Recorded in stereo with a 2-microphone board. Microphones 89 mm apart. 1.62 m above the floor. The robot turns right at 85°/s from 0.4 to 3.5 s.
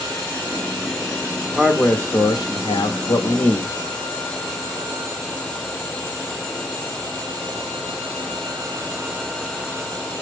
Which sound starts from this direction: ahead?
A man speaking, at 1.6 s.